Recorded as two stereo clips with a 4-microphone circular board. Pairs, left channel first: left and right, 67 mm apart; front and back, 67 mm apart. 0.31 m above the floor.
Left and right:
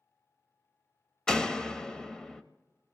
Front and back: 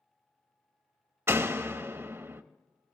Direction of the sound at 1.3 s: 165° left.